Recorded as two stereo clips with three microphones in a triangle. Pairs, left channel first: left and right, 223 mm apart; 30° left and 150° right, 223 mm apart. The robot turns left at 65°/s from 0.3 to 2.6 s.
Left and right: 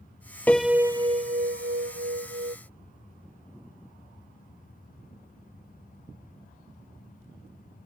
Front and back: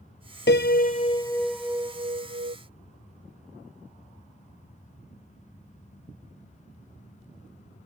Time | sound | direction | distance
0.5 | a piano | 10° left | ?